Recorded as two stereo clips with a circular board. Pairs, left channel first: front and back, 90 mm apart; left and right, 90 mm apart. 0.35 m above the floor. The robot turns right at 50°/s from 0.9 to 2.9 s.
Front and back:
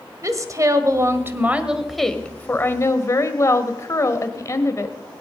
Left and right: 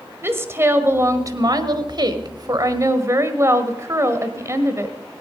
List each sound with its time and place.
0.2 s a woman speaking: 145° right, 1.3 m; by 5.0 s 45° right, 1.3 m